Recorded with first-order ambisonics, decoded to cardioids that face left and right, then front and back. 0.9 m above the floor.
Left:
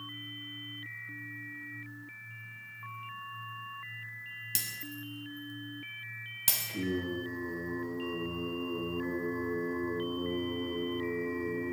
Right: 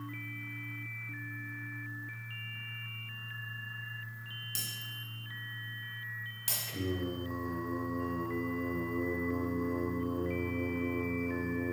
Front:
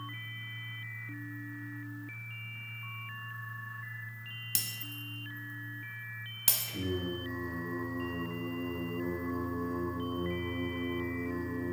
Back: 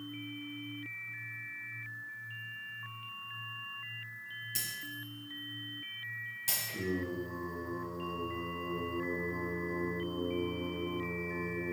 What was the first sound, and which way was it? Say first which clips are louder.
Breaking glass: left 1 dB, front 2 dB; 35° left.